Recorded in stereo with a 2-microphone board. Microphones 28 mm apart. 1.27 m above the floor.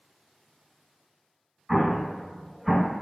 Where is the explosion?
10° right (ahead or behind), 1.6 m.